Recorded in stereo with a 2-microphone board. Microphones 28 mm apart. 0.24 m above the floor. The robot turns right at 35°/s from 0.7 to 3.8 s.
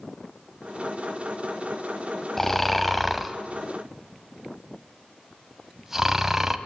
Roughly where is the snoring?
Centre.